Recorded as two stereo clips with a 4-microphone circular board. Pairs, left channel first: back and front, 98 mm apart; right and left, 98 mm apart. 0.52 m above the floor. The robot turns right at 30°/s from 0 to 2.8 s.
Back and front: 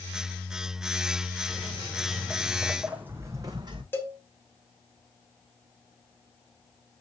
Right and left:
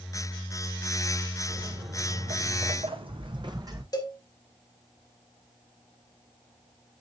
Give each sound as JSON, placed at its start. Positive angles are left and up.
{"t": 1.5, "sound": "footsteps", "azimuth_deg": 85, "distance_m": 2.5}
{"t": 3.9, "sound": "a cowbell", "azimuth_deg": -120, "distance_m": 1.6}